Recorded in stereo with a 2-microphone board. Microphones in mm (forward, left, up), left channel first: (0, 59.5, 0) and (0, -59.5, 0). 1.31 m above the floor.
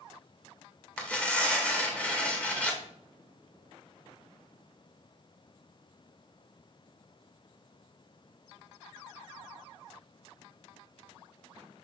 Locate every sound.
1.0 s tearing paper: 10° left (ahead or behind), 1.9 m